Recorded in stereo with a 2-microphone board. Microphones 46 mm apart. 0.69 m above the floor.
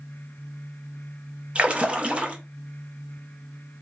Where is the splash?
25° right (ahead or behind), 0.6 m.